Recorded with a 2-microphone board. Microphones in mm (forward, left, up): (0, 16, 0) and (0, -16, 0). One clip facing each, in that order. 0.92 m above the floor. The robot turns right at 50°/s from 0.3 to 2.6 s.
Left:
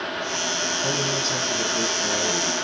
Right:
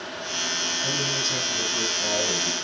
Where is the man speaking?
140° left, 6 m; by 2.5 s 135° right, 6 m.